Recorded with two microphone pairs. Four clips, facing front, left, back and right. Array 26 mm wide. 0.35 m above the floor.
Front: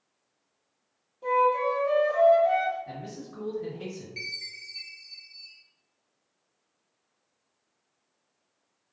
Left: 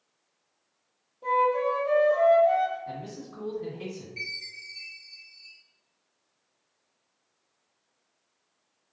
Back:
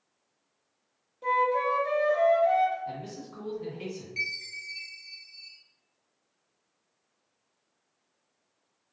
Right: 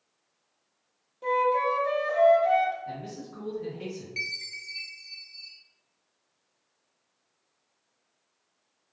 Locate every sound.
1.2 s a flute: 125° right, 0.9 m
2.9 s a man speaking: 170° left, 1.8 m
4.2 s a chime: 95° right, 0.6 m